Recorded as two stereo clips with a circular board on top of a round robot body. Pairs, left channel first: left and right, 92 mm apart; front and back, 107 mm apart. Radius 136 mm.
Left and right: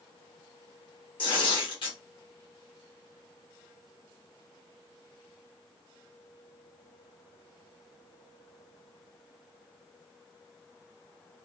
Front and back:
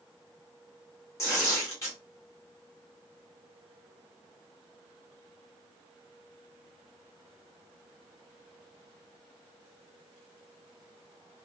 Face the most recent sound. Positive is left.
turn(degrees=65)